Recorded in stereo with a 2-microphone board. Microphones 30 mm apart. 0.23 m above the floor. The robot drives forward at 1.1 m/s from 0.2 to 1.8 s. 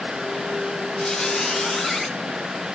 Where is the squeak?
30° left (ahead or behind), 0.5 m; by 2.1 s 15° left (ahead or behind), 1.0 m.